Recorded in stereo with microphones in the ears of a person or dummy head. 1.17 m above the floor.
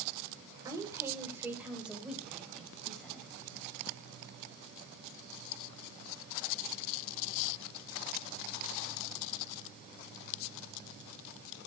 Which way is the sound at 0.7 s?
15° right (ahead or behind).